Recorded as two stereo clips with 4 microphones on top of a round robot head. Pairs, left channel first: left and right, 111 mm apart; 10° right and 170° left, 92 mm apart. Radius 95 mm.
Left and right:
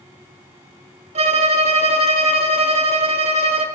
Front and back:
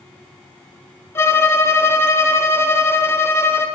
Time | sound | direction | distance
1.1 | a violin | 75° right | 0.7 m